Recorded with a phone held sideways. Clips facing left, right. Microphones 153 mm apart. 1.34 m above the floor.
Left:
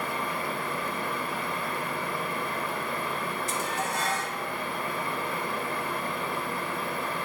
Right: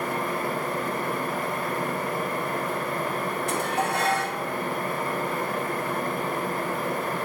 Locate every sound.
0.0 s a fan: 45° right (ahead or behind), 0.8 m
3.5 s dishes clattering: 60° right (ahead or behind), 0.7 m